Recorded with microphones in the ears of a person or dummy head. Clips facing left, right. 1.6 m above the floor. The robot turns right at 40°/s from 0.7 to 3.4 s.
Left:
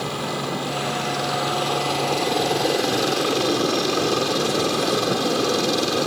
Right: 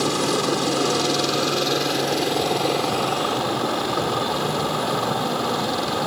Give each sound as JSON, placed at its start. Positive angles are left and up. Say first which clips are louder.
{"t": 0.0, "sound": "a helicopter", "louder": "right 6 dB", "azimuth_deg": -65}